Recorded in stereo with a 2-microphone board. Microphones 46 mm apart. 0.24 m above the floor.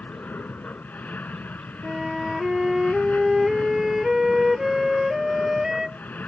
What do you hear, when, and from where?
0.0 s an aircraft: 35° left (ahead or behind)
1.8 s a flute: 10° right (ahead or behind)